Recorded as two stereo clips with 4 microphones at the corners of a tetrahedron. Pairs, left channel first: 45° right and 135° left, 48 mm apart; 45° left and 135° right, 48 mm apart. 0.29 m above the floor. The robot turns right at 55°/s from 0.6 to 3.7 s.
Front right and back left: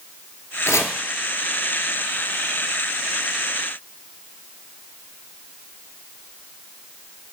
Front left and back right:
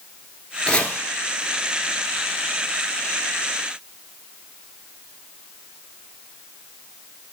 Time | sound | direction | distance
0.7 | chopping | 30° right | 0.7 m